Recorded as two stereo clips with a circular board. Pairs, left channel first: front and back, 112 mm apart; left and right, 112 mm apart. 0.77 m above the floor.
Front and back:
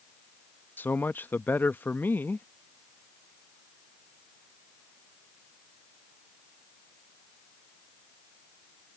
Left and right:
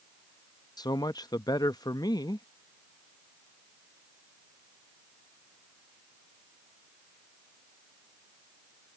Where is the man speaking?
65° left.